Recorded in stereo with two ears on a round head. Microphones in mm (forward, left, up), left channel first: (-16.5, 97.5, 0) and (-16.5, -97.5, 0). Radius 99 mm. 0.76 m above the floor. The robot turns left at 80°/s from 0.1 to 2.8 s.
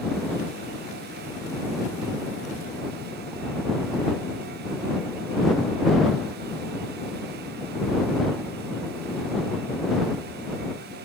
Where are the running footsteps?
No running footsteps in this recording.